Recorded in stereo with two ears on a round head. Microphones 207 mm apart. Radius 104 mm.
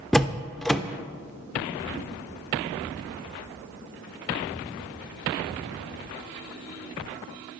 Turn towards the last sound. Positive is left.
turn(degrees=0)  # may be behind; listen again after turning